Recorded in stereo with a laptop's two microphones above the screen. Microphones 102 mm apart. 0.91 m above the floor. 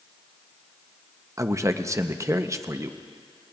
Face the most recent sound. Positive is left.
turn(degrees=-30)  # may be behind; listen again after turning